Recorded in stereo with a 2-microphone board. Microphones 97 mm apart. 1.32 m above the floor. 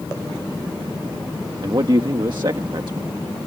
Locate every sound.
1.6 s a man speaking: 50° right (ahead or behind)